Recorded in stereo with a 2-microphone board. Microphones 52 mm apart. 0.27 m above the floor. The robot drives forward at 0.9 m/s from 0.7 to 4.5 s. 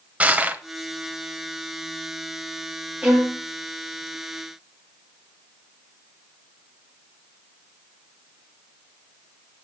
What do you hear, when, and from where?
0.2 s crushing: 25° right (ahead or behind), 1.4 m
3.0 s a violin: 20° right (ahead or behind), 2.5 m; by 3.4 s 15° right (ahead or behind), 3 m